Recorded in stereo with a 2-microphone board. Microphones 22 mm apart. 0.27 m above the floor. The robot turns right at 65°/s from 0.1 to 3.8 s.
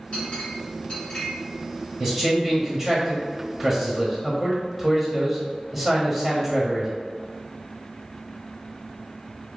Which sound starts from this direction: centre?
A man speaking, at 2.0 s.